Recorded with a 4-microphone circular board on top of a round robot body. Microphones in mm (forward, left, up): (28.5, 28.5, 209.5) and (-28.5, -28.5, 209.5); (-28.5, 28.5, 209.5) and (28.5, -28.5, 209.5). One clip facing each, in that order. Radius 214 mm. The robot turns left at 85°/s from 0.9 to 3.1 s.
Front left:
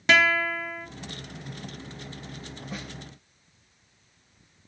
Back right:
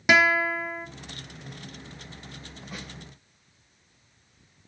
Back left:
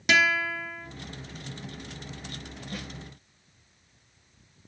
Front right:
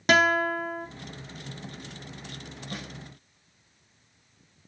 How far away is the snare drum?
About 4.5 m.